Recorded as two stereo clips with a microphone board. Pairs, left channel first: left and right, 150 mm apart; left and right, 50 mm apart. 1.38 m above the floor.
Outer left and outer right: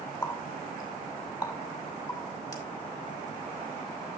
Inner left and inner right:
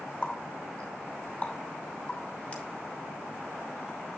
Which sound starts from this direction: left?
A running tap, at 0.2 s.